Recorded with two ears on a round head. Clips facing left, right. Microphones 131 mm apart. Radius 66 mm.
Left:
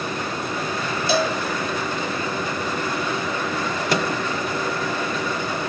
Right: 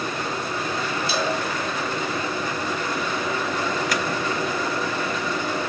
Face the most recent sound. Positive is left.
turn(degrees=20)  # may be behind; listen again after turning